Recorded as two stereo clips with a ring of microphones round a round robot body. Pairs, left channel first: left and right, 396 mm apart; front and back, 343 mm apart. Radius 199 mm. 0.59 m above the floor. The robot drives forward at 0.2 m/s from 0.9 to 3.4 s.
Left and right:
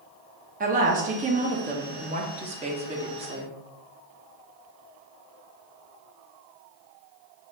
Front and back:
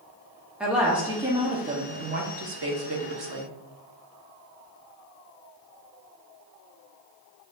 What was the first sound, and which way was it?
A woman speaking, 100° right.